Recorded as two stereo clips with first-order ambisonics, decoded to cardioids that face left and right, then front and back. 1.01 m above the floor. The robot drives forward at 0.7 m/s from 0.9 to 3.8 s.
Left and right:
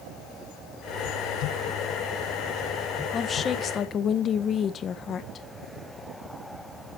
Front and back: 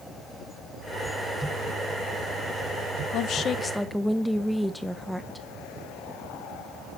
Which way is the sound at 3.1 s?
25° left.